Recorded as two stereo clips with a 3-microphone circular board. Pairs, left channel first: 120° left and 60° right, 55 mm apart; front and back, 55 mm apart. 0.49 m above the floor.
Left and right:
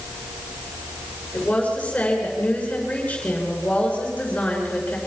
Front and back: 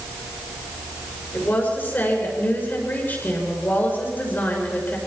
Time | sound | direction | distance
1.3 | a woman speaking | 55° left | 7 m